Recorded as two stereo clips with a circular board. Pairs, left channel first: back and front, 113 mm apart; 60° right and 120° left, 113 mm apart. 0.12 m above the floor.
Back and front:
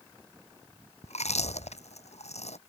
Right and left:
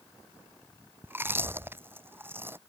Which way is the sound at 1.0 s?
170° right.